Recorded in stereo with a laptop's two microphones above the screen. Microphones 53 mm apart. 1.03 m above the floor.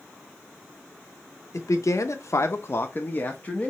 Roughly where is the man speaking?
Left.